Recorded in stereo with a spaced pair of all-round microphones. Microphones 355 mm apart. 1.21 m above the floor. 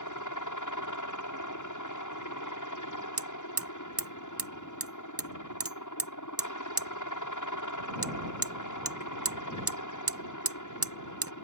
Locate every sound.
0.0 s a helicopter: 65° left (ahead or behind)
3.2 s hammering: 45° right (ahead or behind)